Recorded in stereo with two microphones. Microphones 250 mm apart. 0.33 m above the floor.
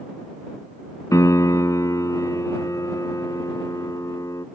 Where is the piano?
15° left (ahead or behind).